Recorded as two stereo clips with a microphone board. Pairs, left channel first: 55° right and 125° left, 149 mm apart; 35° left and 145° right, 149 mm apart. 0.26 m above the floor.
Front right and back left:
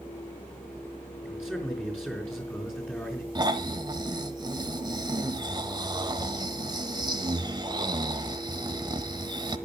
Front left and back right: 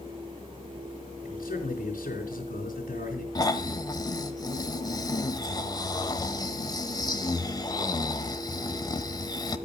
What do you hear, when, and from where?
1.2 s a man speaking: 25° left, 4 m
3.4 s snoring: 80° left, 1.0 m